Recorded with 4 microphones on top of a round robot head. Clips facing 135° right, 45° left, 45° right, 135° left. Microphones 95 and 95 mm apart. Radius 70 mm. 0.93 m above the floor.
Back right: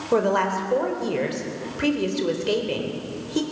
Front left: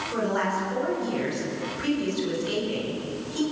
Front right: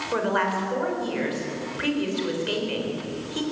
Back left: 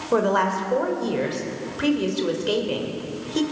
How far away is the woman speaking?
About 3.5 m.